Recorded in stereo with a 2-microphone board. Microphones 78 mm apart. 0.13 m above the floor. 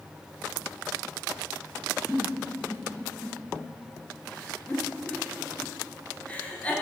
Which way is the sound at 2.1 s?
15° left (ahead or behind).